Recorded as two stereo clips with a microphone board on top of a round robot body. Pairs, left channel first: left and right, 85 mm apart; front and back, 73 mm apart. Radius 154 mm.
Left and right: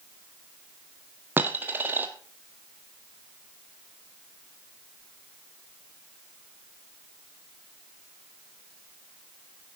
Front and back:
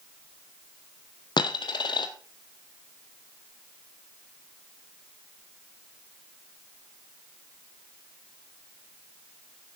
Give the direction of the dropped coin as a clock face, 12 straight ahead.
1 o'clock.